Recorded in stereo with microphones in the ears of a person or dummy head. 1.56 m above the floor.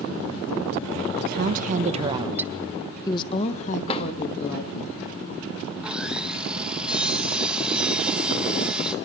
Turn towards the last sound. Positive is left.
turn(degrees=-10)  # may be behind; listen again after turning